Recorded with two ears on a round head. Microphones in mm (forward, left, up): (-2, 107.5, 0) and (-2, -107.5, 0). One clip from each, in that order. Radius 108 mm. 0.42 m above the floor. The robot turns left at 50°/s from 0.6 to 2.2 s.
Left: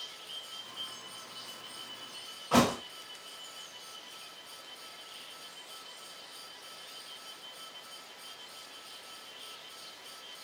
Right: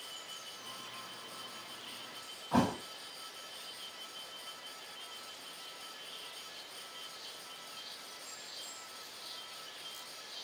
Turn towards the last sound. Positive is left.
turn(degrees=75)  # may be behind; listen again after turning